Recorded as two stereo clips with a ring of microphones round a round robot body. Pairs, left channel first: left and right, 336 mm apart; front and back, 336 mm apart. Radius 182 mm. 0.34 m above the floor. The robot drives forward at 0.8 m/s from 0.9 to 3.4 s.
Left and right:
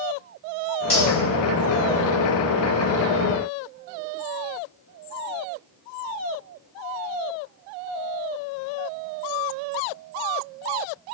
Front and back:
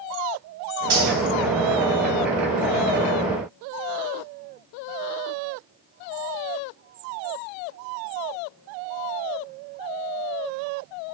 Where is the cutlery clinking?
150° left, 1.3 m; by 1.1 s 155° left, 1.4 m.